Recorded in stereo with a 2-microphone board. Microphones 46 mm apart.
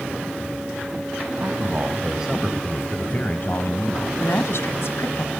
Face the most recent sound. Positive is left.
turn(degrees=65)  # may be behind; listen again after turning